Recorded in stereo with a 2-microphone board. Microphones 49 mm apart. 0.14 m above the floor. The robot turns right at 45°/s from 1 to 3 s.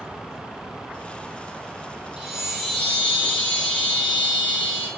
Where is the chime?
15° right, 0.8 m; by 4.9 s 25° left, 0.8 m.